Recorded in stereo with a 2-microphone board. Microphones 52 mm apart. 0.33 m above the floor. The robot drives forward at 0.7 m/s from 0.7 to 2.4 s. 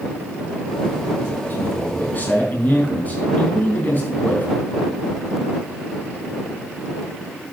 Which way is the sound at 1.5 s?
45° left (ahead or behind).